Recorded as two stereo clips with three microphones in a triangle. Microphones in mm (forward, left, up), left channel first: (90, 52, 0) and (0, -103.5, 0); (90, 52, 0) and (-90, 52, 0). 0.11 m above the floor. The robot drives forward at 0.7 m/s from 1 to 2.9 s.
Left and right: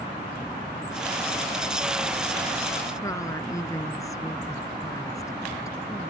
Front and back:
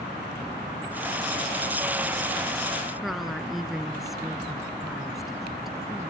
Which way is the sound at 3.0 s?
95° left.